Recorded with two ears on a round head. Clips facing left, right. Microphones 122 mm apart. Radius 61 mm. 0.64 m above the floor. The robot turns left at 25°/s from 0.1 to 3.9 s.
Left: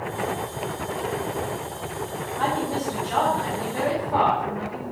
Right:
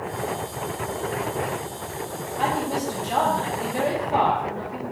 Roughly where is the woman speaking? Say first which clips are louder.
Right 1 dB; centre.